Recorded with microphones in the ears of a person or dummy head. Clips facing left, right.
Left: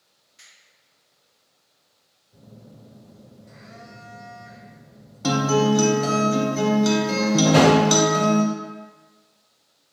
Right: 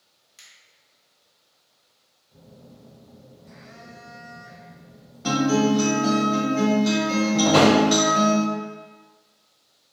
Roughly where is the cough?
I don't hear a cough.